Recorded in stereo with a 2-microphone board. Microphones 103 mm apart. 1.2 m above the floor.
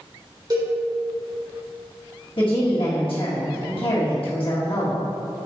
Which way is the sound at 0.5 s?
40° right (ahead or behind).